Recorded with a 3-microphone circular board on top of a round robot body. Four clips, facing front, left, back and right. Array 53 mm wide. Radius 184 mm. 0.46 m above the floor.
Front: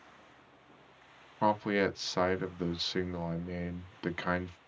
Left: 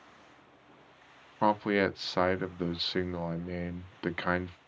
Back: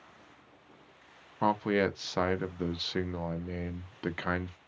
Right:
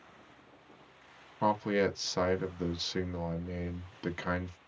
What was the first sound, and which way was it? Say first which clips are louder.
A man speaking: left 2 dB, back 1 dB; 100° left.